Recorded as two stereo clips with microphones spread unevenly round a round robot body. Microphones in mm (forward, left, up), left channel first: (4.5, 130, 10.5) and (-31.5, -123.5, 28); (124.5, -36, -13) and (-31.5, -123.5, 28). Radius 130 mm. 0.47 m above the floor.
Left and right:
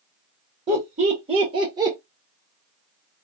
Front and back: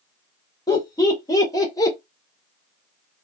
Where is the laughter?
35° right, 1.6 m; by 2.0 s 20° right, 1.1 m.